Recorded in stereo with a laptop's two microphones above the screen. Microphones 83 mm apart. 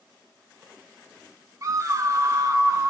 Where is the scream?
40° right (ahead or behind), 0.6 m; by 2.9 s 35° right (ahead or behind), 1.2 m.